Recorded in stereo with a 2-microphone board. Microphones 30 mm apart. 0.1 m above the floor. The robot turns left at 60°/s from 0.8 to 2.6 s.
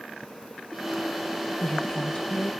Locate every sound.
1.6 s a woman speaking: 145° left, 2.0 m; by 2.5 s 90° left, 2.0 m